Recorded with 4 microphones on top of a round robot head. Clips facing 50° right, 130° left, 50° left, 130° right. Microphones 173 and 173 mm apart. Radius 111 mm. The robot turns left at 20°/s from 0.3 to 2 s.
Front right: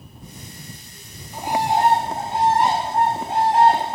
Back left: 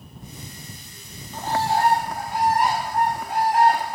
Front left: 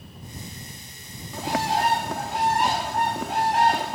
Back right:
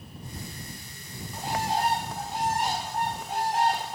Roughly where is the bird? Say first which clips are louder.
Front right 2 dB, front left 4 dB; ahead left.